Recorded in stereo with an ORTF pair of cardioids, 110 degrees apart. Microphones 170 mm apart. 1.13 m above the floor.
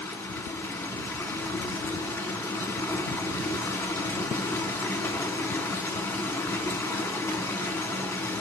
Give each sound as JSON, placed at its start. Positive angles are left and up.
{"t": 0.0, "sound": "running water", "azimuth_deg": 10, "distance_m": 1.5}